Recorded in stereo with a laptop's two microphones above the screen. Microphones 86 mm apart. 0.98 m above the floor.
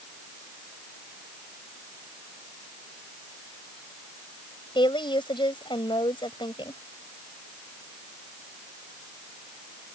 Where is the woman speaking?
70° left (ahead or behind).